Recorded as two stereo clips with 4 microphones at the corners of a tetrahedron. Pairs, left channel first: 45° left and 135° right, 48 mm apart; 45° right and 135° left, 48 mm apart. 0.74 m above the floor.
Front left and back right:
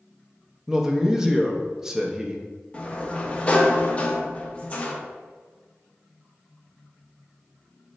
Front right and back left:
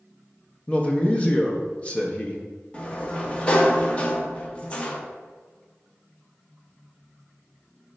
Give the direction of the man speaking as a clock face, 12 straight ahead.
2 o'clock.